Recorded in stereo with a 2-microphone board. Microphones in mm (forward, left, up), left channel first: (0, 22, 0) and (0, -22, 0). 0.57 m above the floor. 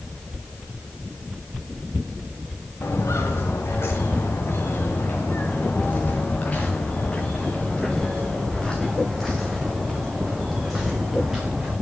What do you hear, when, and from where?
2.8 s footsteps: 80° left, 3.5 m; by 11.7 s 5° right (ahead or behind), 6 m